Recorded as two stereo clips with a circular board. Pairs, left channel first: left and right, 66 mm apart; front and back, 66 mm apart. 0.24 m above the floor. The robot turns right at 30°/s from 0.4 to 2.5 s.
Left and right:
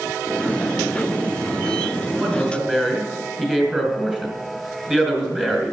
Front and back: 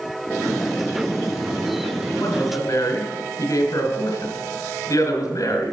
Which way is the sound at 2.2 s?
25° right.